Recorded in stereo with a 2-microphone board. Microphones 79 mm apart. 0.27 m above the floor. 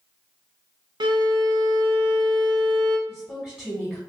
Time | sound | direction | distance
1.0 | a violin | 70° right (ahead or behind) | 0.6 m
3.1 | a woman speaking | 10° left (ahead or behind) | 1.6 m